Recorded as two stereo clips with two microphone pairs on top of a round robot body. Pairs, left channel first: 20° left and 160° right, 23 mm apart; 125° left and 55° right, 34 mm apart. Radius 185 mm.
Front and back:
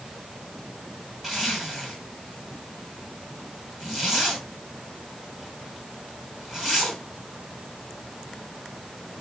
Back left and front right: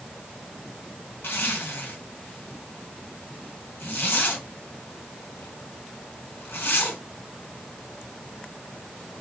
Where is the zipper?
125° left, 2.5 m.